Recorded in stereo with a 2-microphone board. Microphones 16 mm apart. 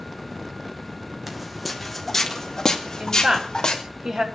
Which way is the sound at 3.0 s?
65° right (ahead or behind).